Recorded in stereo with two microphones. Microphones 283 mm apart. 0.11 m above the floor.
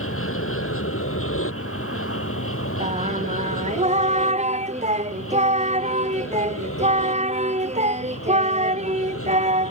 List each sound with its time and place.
0.0 s an aircraft: 50° left (ahead or behind)
2.8 s singing: 25° right (ahead or behind)